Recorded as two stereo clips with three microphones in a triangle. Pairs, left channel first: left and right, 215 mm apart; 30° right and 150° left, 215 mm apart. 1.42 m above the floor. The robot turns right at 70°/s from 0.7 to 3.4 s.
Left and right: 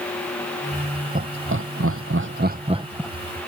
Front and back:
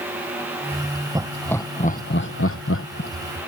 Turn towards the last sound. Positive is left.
turn(degrees=20)